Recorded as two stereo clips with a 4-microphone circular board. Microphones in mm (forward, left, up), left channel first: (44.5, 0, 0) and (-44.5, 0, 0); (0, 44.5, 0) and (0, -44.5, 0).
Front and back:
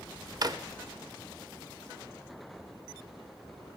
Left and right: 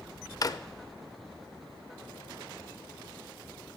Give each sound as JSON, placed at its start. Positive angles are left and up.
{"t": 0.4, "sound": "a drawer", "azimuth_deg": 135, "distance_m": 0.6}